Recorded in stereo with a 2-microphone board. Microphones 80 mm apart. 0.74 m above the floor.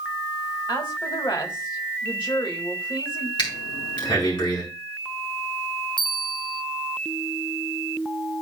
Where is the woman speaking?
70° left (ahead or behind), 3 m.